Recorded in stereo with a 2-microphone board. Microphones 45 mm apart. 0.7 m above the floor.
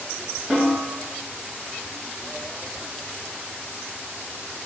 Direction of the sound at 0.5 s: 5° right (ahead or behind).